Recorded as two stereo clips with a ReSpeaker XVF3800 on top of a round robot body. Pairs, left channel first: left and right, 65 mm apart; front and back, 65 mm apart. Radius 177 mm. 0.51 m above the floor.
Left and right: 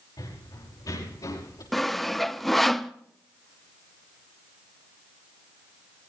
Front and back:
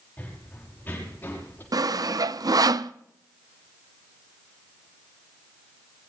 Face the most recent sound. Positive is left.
turn(degrees=180)